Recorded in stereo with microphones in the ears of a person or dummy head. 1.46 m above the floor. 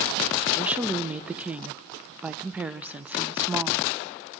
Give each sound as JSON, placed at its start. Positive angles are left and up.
{"t": 0.6, "sound": "a woman speaking", "side_deg": -10, "distance_m": 0.5}